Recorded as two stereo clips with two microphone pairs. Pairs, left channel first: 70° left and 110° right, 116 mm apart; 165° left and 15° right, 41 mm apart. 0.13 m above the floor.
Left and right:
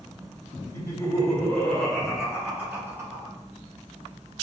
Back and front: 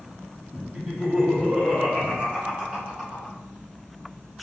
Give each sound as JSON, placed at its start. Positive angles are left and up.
{"t": 0.7, "sound": "laughter", "azimuth_deg": 30, "distance_m": 1.5}